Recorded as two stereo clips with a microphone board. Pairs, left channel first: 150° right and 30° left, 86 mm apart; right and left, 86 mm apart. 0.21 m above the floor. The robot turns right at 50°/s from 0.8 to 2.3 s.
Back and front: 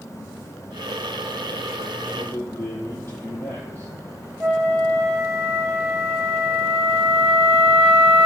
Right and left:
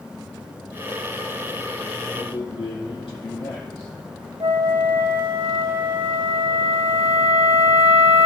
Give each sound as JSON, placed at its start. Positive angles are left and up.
{"t": 2.1, "sound": "a man speaking", "azimuth_deg": -110, "distance_m": 4.0}
{"t": 4.4, "sound": "a flute", "azimuth_deg": 110, "distance_m": 2.0}